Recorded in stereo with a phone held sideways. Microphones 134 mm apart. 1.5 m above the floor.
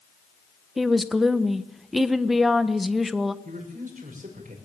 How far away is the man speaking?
About 6.5 m.